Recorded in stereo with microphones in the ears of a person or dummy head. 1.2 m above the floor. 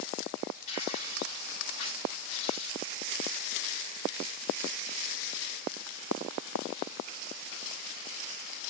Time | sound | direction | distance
0.7 | tearing paper | 30° left (ahead or behind) | 6.5 m